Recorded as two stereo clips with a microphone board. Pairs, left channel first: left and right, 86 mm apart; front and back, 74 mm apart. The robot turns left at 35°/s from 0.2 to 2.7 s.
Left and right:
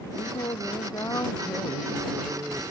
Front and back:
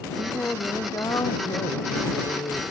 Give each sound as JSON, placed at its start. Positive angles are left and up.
{"t": 0.1, "sound": "singing", "azimuth_deg": 70}